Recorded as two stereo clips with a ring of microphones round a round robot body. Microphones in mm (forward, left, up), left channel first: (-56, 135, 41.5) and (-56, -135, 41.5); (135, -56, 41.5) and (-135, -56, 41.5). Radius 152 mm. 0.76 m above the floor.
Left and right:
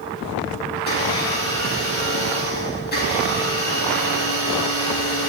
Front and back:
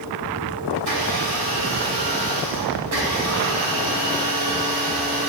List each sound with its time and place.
0.8 s a blender: 145° left, 6 m